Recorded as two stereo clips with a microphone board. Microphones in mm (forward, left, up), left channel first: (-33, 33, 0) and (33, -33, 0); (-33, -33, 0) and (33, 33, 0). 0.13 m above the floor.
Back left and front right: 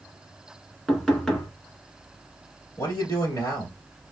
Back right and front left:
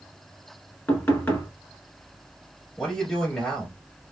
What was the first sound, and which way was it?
Knocking, 150° right.